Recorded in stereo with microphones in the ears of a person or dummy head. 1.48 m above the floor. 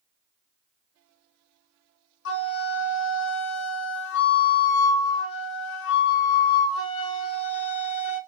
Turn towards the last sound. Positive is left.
turn(degrees=65)  # may be behind; listen again after turning